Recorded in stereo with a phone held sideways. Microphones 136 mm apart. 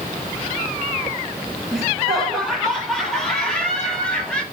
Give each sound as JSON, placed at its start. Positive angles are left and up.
{"t": 1.7, "sound": "laughter", "side_deg": 0, "distance_m": 6.5}